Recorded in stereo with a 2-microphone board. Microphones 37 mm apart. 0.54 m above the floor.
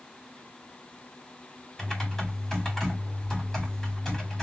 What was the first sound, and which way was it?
Typing on a keyboard, 5° left (ahead or behind).